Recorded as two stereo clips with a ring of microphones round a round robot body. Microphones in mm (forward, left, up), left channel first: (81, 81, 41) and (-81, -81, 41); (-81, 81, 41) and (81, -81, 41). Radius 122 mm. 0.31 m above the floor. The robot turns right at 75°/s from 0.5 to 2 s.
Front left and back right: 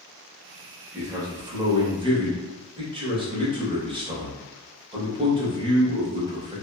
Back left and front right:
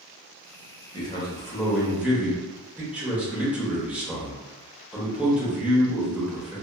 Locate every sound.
0.9 s a man speaking: 160° left, 0.9 m; by 6.6 s 125° right, 0.9 m